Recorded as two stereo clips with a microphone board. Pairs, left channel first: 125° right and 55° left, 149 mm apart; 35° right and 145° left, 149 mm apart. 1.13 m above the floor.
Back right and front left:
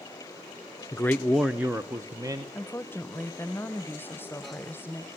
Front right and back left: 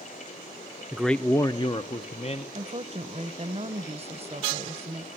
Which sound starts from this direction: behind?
A woman speaking, at 2.5 s.